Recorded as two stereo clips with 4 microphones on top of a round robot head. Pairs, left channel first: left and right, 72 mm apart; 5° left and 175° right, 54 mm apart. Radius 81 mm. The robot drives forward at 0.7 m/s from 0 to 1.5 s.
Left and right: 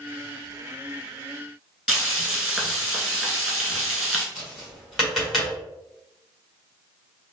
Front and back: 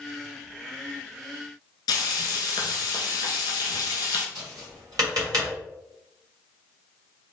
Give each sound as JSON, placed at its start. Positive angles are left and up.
{"t": 1.9, "sound": "frying", "azimuth_deg": -15, "distance_m": 0.9}
{"t": 4.3, "sound": "tapping", "azimuth_deg": 180, "distance_m": 1.9}